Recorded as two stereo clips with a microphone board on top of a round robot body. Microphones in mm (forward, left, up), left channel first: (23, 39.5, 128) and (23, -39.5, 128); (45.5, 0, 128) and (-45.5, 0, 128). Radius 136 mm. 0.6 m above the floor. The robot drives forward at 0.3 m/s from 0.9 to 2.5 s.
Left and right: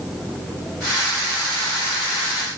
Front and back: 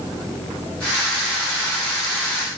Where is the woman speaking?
I don't hear a woman speaking.